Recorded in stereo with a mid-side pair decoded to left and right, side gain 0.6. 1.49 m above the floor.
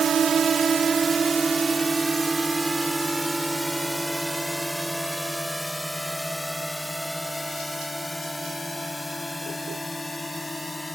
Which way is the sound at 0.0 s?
35° right.